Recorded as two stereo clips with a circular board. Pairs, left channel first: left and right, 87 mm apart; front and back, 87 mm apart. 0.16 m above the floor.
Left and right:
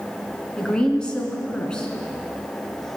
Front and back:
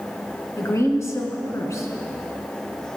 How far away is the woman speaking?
About 1.8 m.